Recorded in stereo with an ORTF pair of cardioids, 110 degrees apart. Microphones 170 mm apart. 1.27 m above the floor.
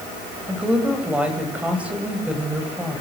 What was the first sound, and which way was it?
A woman speaking, 10° right.